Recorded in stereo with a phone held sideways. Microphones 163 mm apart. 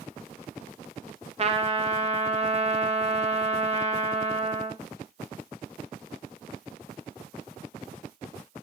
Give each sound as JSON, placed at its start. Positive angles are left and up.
{"t": 1.4, "sound": "a trumpet", "side_deg": -40, "distance_m": 0.5}